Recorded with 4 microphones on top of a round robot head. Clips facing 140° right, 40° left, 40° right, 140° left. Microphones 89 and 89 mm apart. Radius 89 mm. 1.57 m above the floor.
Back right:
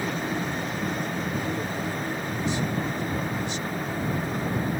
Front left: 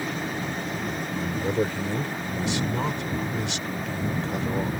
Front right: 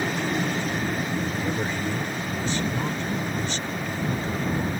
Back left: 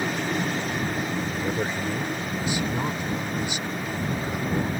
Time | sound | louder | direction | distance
1.1 | a man speaking | front left 3 dB, even | 60° left | ?